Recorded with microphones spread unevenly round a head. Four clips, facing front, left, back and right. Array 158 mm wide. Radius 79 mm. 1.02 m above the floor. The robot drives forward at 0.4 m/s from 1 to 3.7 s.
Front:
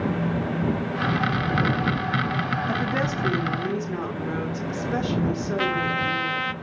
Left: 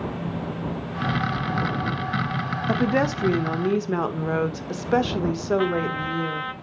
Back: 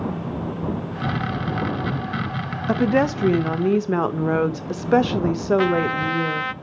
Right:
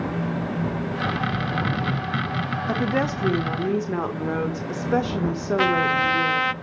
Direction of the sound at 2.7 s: 170° left.